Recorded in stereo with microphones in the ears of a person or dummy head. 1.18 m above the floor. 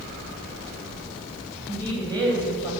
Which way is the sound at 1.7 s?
25° right (ahead or behind).